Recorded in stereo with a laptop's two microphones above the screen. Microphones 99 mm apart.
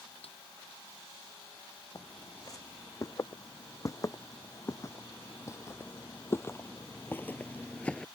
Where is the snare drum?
75° left (ahead or behind).